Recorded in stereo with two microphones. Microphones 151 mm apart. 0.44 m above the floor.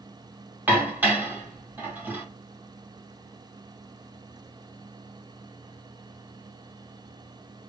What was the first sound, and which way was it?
Dishes clattering, 10° right (ahead or behind).